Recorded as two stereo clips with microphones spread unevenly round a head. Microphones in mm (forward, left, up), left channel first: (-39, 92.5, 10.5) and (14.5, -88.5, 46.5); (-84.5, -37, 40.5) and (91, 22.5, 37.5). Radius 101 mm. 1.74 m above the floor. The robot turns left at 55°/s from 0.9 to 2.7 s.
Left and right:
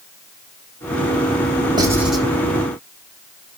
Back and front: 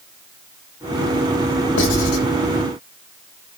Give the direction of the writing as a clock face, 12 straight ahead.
5 o'clock.